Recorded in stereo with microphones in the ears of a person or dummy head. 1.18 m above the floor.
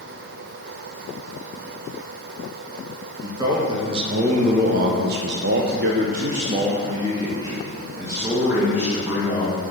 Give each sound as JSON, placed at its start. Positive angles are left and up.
{"t": 3.2, "sound": "a man speaking", "side_deg": -20, "distance_m": 1.8}